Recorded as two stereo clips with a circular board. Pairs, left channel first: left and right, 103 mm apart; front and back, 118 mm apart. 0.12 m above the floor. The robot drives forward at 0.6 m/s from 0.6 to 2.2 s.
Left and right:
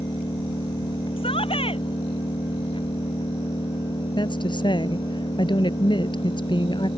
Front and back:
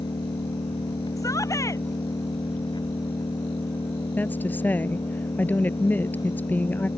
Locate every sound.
0.0 s an engine running: 50° left; by 7.0 s 55° left
1.2 s a shout: 60° left; by 1.9 s 65° left
4.2 s a woman speaking: 70° left